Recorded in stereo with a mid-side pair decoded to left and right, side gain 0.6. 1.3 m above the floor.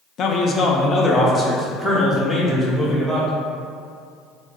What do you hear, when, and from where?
0.2 s a man speaking: 50° left, 0.6 m; by 3.3 s 5° left, 1.9 m